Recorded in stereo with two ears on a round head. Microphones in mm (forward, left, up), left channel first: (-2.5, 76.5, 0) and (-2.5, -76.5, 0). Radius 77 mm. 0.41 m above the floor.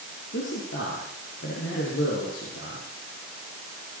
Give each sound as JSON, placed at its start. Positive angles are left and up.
{"t": 0.3, "sound": "a man speaking", "side_deg": 80, "distance_m": 8.0}